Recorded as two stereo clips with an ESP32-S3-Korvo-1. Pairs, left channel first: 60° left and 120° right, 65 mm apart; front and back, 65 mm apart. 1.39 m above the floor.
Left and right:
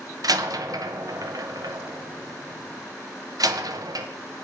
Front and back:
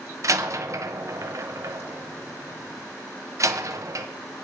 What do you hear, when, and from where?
0.2 s a door slam: 140° right, 0.8 m